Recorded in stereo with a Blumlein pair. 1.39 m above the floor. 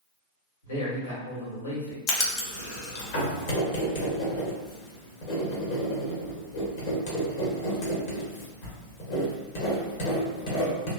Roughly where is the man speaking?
Left.